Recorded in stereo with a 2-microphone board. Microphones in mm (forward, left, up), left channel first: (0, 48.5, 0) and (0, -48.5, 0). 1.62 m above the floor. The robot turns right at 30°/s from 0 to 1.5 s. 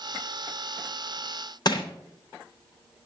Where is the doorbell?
I don't hear a doorbell.